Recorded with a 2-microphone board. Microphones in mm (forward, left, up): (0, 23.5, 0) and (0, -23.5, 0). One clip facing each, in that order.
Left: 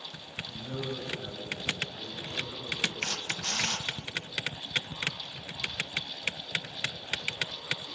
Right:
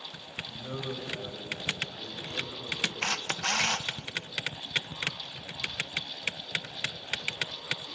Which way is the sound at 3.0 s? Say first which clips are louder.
Right 3 dB; 60° right (ahead or behind).